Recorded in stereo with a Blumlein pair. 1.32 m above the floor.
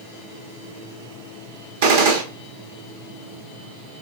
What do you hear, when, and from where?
1.8 s a gunshot: 55° right, 1.2 m